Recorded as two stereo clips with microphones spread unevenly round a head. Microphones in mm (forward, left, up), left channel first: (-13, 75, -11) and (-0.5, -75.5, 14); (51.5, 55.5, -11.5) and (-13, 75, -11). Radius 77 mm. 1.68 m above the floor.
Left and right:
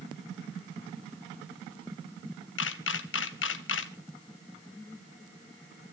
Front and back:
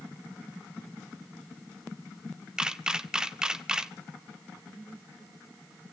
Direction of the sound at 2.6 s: 85° left.